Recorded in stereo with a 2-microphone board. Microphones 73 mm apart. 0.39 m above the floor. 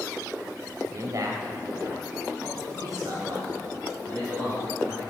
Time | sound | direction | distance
0.8 | a man speaking | 45° right (ahead or behind) | 1.3 m